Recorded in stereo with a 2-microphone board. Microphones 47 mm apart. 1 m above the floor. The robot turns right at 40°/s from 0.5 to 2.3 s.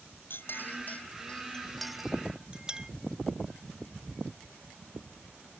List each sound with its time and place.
0.3 s a clink: 55° left (ahead or behind); by 2.9 s 15° right (ahead or behind)